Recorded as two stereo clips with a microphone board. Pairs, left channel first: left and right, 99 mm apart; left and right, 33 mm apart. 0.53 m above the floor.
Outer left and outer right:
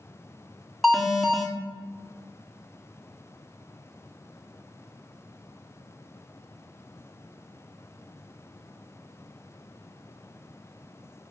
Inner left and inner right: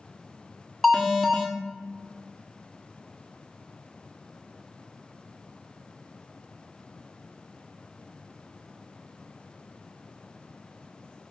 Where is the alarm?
Centre (ahead or behind), 1.3 m.